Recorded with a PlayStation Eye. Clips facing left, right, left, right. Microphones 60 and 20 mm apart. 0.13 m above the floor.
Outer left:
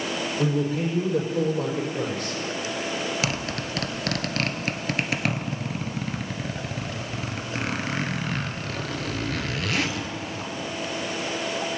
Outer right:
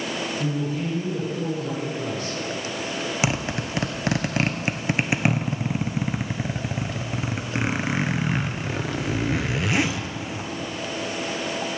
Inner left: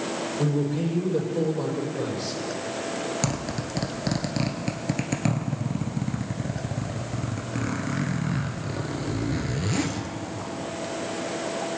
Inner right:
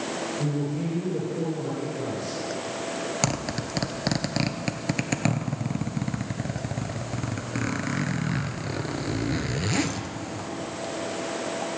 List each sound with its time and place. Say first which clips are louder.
0.4 s a man speaking: outer left 5 dB, inner left 6 dB; 65° left (ahead or behind), 3.5 m
3.2 s a zipper: outer right 3 dB, inner right 1 dB; 20° right (ahead or behind), 0.9 m